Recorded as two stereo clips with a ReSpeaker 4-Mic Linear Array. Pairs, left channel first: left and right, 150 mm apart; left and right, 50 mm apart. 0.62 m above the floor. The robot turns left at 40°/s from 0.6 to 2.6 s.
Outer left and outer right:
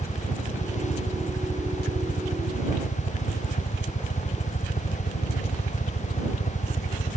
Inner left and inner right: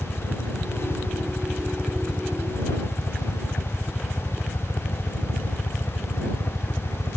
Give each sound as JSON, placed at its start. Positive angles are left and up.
{"t": 0.0, "sound": "a helicopter", "side_deg": 25}